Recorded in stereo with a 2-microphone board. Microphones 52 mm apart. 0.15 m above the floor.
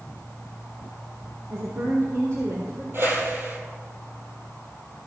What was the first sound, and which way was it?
A woman speaking, 80° right.